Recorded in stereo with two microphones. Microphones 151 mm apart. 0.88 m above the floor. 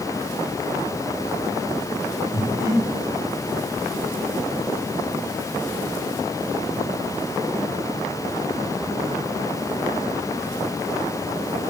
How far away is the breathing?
About 3 m.